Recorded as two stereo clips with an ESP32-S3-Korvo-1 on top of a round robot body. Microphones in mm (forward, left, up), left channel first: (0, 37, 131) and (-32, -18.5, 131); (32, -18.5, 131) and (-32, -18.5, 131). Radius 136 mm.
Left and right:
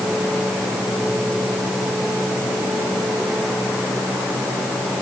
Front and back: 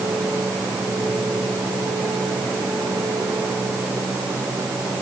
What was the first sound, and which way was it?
Only background noise.